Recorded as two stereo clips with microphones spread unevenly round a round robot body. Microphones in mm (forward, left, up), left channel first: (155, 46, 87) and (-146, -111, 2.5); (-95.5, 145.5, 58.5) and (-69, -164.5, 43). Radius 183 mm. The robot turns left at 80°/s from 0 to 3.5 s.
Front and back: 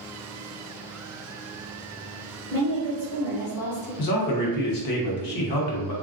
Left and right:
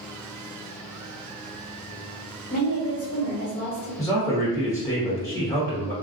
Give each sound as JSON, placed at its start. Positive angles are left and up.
{"t": 2.5, "sound": "a woman speaking", "azimuth_deg": 135, "distance_m": 1.7}
{"t": 4.0, "sound": "a man speaking", "azimuth_deg": 15, "distance_m": 1.0}